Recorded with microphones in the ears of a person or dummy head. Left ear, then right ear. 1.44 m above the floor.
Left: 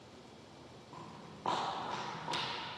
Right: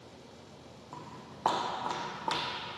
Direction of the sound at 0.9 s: 35° right (ahead or behind).